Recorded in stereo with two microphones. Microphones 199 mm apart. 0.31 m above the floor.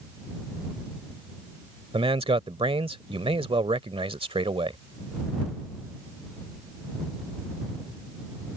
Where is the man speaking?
30° right (ahead or behind).